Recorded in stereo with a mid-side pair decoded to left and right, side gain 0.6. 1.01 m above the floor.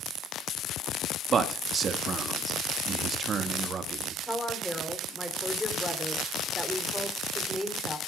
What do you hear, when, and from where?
1.3 s a man speaking: 40° right, 1.4 m
4.3 s a woman speaking: 5° left, 3 m